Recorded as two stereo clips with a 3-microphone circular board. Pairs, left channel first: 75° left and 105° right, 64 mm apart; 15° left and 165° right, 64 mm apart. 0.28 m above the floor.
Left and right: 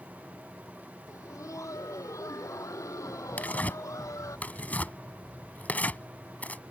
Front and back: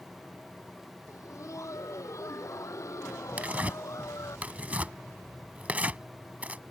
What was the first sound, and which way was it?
Laughter, 45° left.